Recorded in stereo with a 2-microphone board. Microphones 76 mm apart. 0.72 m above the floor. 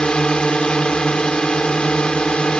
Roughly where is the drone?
Centre.